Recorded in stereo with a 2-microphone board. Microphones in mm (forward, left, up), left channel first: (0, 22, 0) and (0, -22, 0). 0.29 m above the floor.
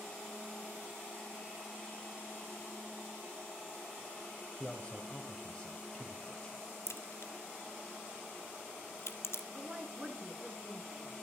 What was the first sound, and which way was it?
A man speaking, 25° left (ahead or behind).